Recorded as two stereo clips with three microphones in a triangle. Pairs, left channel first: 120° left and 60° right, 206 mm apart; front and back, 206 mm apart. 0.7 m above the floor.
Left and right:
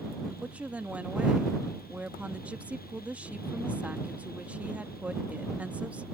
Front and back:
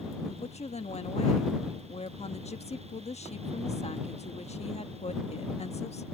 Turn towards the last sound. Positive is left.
turn(degrees=20)